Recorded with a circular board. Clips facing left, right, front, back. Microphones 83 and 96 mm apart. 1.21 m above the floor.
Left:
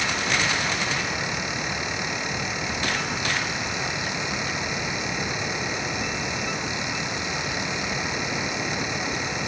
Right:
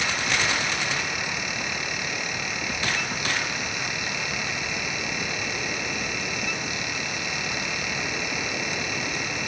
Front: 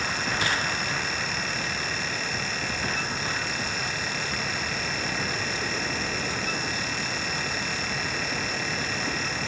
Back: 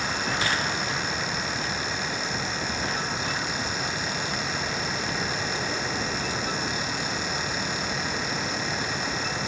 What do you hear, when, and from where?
Only background noise.